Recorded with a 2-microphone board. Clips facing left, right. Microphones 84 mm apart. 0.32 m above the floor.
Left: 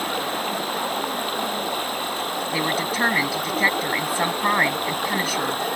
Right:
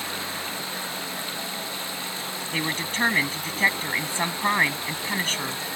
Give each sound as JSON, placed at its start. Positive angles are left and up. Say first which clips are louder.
{"t": 0.0, "sound": "running water", "louder": "left 8 dB", "side_deg": 55}
{"t": 2.5, "sound": "a woman speaking", "louder": "left 4 dB", "side_deg": 10}